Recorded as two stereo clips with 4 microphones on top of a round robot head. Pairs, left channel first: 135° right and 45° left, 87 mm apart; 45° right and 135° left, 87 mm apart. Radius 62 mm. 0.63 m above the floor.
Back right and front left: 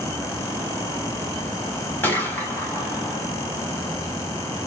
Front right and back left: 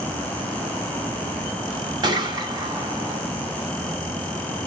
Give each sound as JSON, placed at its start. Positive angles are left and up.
{"t": 2.0, "sound": "a gunshot", "azimuth_deg": 160, "distance_m": 1.3}